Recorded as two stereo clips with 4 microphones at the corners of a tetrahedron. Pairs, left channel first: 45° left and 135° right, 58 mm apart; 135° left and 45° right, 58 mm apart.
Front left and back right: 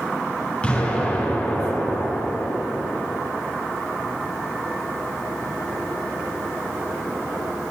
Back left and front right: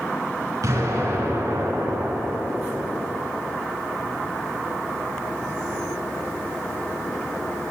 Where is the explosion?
25° right, 7.5 m.